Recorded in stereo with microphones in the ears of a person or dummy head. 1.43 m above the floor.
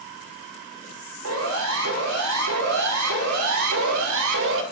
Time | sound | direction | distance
1.2 | a siren | 65° right (ahead or behind) | 7 m